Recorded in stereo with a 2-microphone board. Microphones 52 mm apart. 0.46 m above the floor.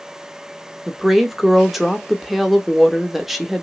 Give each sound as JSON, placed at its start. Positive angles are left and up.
{"t": 0.9, "sound": "a woman speaking", "side_deg": -5, "distance_m": 0.7}